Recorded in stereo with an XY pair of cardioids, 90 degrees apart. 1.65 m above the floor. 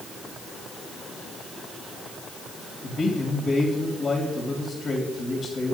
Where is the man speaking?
50° left, 3 m.